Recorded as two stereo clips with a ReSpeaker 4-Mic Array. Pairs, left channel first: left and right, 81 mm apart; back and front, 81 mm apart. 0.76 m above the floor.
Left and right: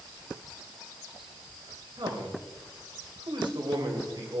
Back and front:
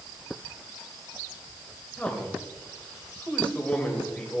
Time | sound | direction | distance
2.0 | a man speaking | 105° right | 3 m